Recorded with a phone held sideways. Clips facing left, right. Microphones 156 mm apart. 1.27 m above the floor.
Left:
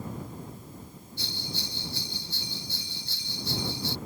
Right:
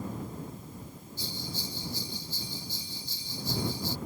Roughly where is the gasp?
I don't hear a gasp.